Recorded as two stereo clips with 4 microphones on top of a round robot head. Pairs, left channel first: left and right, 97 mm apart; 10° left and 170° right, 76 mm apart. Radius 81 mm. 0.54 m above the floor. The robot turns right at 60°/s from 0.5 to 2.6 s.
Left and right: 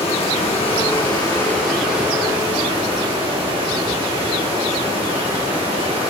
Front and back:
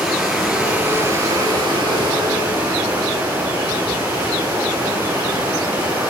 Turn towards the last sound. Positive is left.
turn(degrees=-130)